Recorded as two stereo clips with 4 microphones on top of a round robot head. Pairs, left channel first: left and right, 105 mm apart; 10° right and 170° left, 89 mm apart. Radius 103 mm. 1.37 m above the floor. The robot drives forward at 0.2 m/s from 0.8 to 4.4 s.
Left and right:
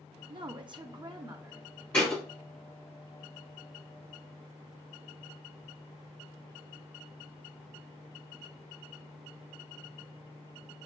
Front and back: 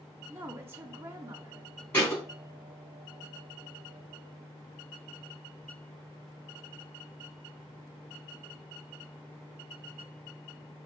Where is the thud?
25° left, 1.3 m.